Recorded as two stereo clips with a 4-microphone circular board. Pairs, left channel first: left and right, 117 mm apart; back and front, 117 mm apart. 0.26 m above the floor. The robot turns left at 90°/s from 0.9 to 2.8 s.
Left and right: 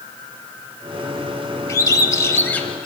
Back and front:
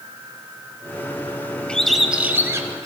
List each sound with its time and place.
1.7 s a bird: 110° left, 0.7 m; by 2.9 s 10° left, 0.7 m